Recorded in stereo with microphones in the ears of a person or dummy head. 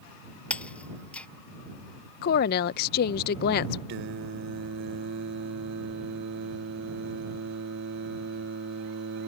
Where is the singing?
65° right (ahead or behind).